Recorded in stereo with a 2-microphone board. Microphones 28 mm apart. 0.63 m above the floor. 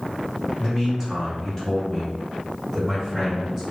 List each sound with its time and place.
0.6 s a man speaking: 10° left (ahead or behind), 1.3 m; by 3.6 s 15° left (ahead or behind), 2 m